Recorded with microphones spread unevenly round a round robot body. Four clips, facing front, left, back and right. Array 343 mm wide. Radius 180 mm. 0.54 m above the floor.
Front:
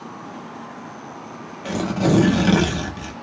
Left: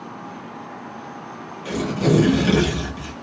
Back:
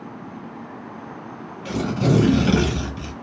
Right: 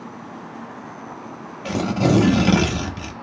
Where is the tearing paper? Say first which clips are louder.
Right 1 dB, front 1 dB; 45° right, 1.0 m.